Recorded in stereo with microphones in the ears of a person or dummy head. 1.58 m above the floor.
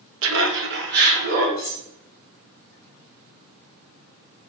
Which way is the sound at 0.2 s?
70° right (ahead or behind).